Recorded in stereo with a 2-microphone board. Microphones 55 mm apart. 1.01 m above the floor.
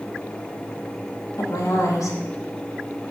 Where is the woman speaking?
80° left, 1.4 m.